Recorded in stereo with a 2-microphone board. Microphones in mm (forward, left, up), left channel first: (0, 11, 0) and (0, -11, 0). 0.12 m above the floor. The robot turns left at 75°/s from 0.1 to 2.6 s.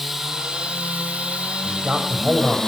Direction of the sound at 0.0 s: 15° right.